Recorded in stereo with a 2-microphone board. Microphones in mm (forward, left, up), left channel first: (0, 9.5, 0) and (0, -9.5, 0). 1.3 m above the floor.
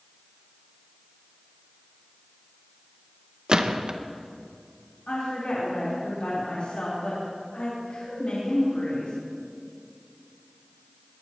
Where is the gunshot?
45° right (ahead or behind), 0.8 m.